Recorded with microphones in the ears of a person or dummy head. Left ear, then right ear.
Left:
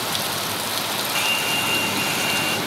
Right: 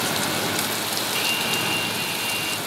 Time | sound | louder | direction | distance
1.1 | a hair dryer | left 3 dB | 20° left (ahead or behind) | ?